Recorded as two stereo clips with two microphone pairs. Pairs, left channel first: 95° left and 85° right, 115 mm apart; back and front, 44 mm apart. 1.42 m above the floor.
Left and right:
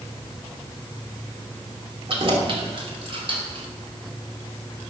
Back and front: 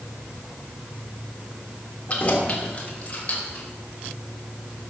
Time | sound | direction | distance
2.1 | keys jangling | 120° right | 2.5 m